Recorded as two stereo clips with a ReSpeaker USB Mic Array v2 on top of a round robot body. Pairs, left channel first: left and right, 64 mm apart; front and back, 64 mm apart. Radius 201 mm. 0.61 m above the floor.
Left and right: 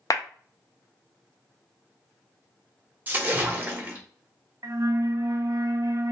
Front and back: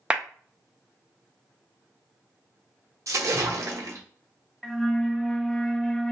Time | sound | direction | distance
0.1 | a clap | 105° left | 0.6 m
3.1 | a splash | 150° right | 0.9 m
4.6 | a flute | 85° right | 0.5 m